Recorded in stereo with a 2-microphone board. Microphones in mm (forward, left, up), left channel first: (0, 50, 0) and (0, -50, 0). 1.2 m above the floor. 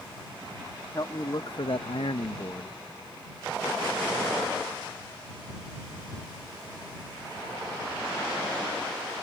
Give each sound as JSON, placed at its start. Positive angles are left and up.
{"t": 0.9, "sound": "a man speaking", "side_deg": 40}